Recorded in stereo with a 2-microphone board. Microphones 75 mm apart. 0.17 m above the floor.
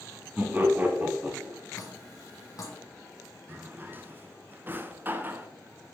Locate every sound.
0.4 s laughter: 25° right (ahead or behind), 1.3 m
1.8 s dripping: 50° left (ahead or behind), 2 m
3.5 s a drawer: 30° right (ahead or behind), 0.5 m